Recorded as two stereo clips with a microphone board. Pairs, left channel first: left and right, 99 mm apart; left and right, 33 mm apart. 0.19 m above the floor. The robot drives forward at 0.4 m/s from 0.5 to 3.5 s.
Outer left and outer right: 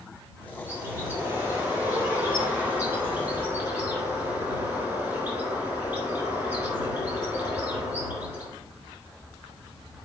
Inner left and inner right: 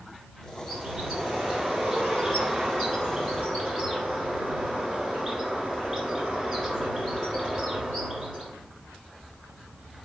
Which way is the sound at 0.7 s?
25° right (ahead or behind).